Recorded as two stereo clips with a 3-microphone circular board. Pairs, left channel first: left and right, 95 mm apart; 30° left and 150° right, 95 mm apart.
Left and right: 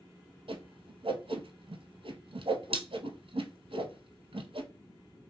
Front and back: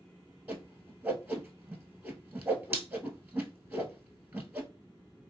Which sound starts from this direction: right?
A whoosh, at 0.5 s.